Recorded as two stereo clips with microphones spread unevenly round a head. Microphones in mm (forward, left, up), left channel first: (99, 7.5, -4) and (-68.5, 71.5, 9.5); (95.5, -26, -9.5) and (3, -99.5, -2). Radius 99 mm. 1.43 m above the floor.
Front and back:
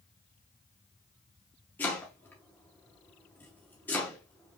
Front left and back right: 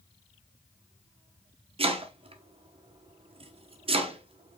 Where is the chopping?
100° right, 1.1 m.